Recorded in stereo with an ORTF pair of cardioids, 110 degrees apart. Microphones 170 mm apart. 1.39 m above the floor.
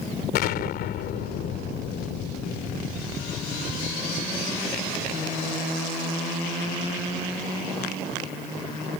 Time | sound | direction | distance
0.3 | an explosion | 70° left | ?